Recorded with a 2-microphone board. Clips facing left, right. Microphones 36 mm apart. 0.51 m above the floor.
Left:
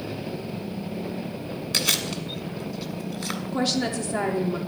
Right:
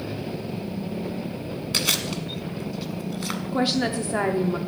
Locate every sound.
1.7 s chewing: 5° right (ahead or behind), 1.2 m
3.5 s a woman speaking: 15° right (ahead or behind), 0.7 m